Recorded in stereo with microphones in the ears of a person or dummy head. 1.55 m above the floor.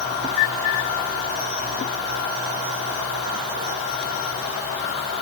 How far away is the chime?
No chime in this recording.